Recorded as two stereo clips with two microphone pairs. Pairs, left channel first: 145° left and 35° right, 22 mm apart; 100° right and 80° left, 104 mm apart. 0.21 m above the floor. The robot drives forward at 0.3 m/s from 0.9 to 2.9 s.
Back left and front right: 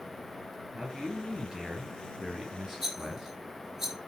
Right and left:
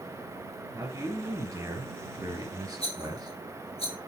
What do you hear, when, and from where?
0.7 s a man speaking: 25° left, 3 m; by 3.4 s 30° left, 2.5 m
2.8 s a rattle: 100° right, 3.5 m; by 4.0 s 105° right, 3.5 m